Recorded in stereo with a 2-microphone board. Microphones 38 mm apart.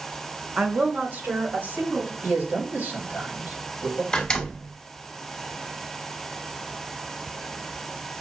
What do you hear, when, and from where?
0.6 s a woman speaking: 30° right (ahead or behind), 0.7 m; by 2.1 s 65° right (ahead or behind), 3 m
2.2 s a man speaking: 55° right (ahead or behind), 2.5 m
4.1 s a door slam: 15° left (ahead or behind), 1.1 m